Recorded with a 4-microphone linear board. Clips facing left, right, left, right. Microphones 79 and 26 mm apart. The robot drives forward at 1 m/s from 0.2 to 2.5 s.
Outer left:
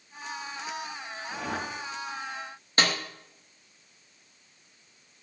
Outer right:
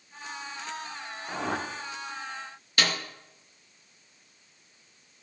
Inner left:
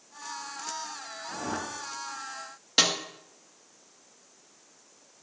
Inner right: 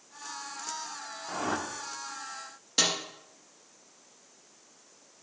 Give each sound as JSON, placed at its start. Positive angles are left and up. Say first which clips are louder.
{"t": 1.3, "sound": "a whoosh", "louder": "outer right 3 dB, inner right 2 dB", "side_deg": -75, "distance_m": 0.8}
{"t": 2.8, "sound": "a snare drum", "louder": "outer left 2 dB, inner left 3 dB", "side_deg": 30, "distance_m": 1.0}